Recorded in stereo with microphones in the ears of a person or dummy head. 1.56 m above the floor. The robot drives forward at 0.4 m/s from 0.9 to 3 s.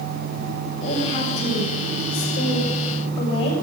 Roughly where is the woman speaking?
Left.